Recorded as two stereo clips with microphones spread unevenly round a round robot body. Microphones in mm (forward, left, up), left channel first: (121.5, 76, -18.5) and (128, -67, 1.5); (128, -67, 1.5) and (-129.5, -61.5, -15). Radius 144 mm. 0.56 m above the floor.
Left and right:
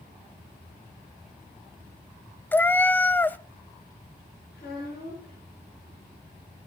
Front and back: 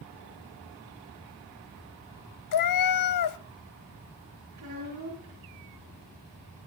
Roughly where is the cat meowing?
Ahead.